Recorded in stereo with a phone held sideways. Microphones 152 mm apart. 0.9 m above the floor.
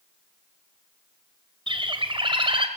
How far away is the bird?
About 2.0 m.